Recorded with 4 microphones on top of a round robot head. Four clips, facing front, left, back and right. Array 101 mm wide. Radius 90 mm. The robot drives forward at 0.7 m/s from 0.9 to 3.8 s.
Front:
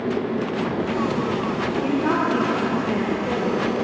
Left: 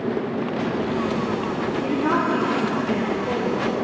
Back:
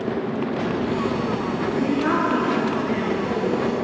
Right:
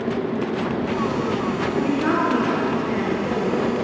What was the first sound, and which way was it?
A woman speaking, 130° right.